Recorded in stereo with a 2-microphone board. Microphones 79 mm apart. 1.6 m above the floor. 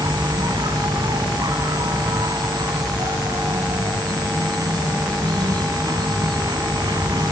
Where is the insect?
60° right (ahead or behind).